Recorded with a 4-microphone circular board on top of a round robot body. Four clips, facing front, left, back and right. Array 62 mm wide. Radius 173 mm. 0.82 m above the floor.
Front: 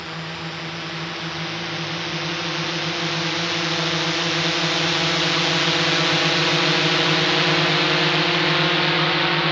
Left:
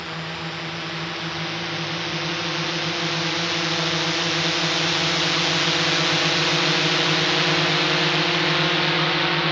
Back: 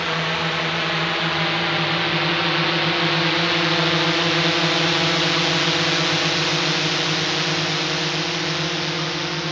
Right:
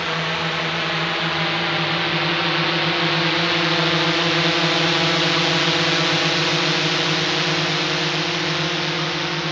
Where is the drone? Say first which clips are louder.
Right 8 dB, back 8 dB; 135° right; by 9.5 s 30° left.